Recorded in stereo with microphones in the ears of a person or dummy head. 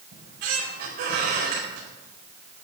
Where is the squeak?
60° right (ahead or behind), 4.5 m.